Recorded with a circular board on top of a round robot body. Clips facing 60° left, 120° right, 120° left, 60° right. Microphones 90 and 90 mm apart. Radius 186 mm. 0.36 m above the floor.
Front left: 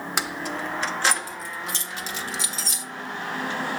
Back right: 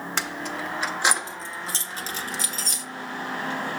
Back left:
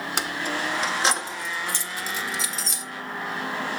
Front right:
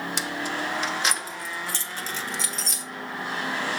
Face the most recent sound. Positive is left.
turn(degrees=-150)